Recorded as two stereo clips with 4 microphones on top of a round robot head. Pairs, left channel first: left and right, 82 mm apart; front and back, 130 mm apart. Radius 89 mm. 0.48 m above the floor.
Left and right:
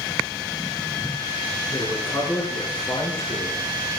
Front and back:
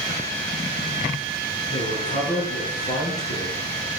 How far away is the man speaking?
About 6.5 m.